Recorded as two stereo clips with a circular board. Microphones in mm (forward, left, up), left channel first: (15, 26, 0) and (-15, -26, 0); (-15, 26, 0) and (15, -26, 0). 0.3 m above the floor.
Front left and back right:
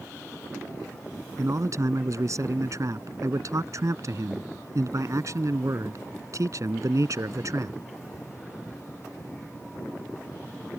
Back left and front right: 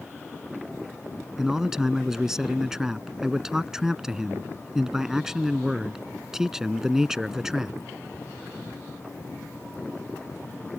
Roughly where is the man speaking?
Behind right.